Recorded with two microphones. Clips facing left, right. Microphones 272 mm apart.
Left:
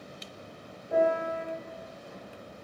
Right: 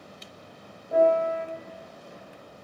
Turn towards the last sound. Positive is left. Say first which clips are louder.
# right 5 dB
turn(degrees=5)  # may be behind; listen again after turning